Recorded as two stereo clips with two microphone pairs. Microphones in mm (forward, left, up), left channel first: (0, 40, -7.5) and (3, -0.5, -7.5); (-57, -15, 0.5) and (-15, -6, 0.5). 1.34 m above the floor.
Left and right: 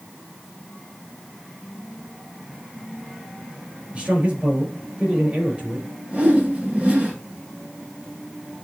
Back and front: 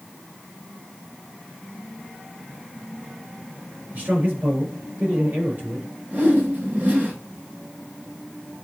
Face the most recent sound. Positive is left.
turn(degrees=-25)